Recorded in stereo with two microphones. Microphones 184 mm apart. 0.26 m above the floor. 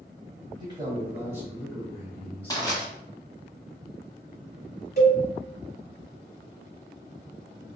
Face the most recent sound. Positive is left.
turn(degrees=55)  # may be behind; listen again after turning